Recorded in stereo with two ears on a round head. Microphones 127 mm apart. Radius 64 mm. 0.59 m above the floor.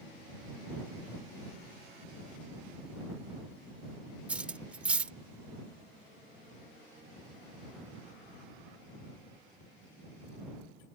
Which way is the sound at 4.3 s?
10° right (ahead or behind).